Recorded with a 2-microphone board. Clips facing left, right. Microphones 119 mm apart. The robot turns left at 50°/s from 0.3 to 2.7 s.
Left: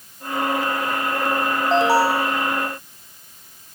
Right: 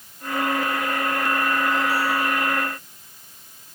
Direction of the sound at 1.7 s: 85° left.